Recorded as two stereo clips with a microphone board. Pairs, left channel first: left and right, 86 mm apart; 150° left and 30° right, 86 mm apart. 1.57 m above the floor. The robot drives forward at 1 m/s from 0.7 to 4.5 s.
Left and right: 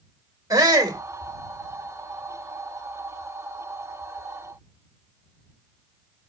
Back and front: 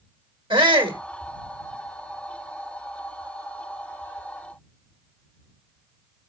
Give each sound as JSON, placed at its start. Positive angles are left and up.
{"t": 0.5, "sound": "a shout", "azimuth_deg": -40, "distance_m": 1.9}